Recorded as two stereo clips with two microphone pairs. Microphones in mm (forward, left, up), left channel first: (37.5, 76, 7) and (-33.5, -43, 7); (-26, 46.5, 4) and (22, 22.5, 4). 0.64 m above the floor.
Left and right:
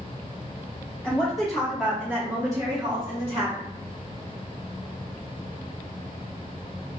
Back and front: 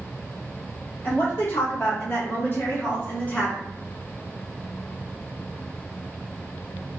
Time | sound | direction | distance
1.0 | a woman speaking | 140° left | 1.7 m